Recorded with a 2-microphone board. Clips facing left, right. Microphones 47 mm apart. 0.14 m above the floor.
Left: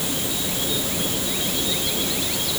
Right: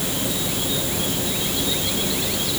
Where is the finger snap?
No finger snap in this recording.